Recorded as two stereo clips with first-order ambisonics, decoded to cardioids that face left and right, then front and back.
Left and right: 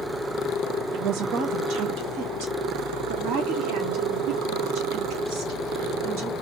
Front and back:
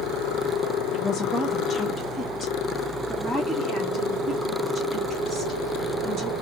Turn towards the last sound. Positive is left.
turn(degrees=-110)